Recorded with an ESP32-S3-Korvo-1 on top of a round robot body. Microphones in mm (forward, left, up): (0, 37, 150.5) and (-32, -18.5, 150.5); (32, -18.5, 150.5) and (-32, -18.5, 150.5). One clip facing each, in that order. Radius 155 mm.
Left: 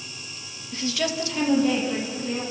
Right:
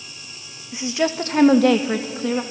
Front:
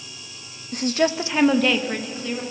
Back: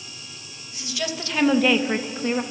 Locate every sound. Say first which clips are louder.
0.7 s a woman speaking: right 5 dB, front 9 dB; 40° right, 1.5 m; by 2.4 s 125° right, 2 m